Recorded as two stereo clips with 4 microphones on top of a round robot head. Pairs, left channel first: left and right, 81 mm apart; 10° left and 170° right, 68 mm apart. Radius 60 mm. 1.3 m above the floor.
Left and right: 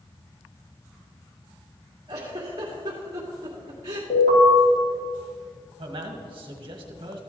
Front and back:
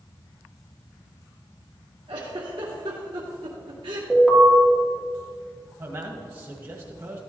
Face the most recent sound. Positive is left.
turn(degrees=-120)